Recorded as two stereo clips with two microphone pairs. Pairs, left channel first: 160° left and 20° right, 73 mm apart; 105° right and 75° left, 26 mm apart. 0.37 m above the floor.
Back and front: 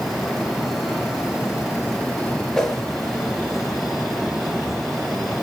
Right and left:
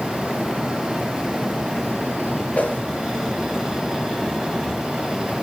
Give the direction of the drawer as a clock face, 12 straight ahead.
I don't hear a drawer.